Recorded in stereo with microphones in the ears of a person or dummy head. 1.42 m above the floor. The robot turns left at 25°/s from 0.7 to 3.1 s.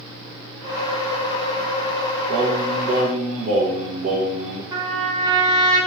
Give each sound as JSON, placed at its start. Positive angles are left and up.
{"t": 2.3, "sound": "singing", "side_deg": -55, "distance_m": 0.7}
{"t": 4.7, "sound": "a trumpet", "side_deg": -20, "distance_m": 0.7}